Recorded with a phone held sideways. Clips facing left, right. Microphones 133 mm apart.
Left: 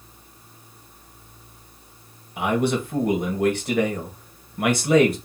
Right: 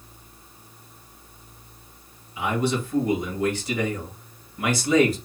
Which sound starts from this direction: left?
A man speaking, at 2.4 s.